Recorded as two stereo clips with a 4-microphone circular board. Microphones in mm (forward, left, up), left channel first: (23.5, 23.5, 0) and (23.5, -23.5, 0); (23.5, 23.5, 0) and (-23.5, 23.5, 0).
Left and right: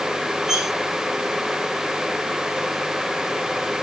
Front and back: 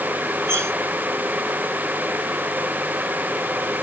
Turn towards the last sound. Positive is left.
turn(degrees=-165)